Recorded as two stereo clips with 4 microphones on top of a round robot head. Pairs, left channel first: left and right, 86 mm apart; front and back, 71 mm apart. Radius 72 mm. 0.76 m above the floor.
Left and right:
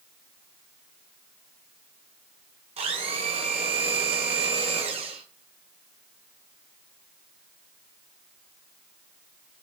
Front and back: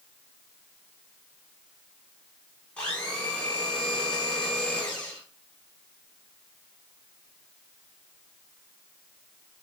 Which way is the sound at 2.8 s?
80° right.